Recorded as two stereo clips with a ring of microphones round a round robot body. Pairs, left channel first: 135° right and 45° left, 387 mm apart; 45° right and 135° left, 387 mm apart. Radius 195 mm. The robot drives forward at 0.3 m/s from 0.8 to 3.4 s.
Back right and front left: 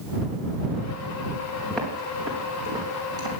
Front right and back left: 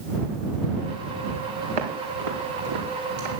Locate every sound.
1.7 s footsteps: 135° left, 3.5 m; by 3.3 s 125° left, 4.5 m